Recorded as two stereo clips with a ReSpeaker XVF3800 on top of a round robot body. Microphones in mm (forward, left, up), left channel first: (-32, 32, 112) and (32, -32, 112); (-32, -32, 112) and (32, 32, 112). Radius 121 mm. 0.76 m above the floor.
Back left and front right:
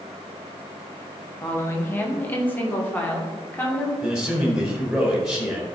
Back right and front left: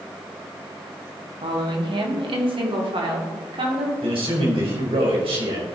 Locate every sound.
1.4 s a woman speaking: 70° left, 1.6 m; by 3.9 s 60° left, 2.5 m
4.0 s a man speaking: 40° left, 4 m